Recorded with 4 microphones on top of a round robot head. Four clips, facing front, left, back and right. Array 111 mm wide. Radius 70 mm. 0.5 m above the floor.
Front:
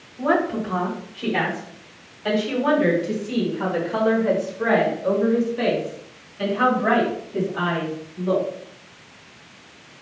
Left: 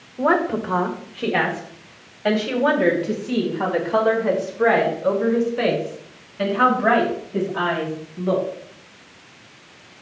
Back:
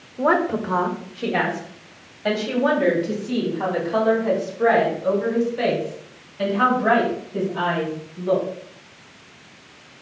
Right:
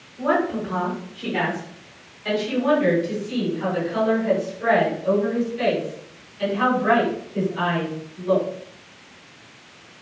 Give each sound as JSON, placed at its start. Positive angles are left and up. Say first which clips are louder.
{"t": 0.2, "sound": "a woman speaking", "louder": "left 2 dB, back 1 dB", "azimuth_deg": 135, "distance_m": 1.9}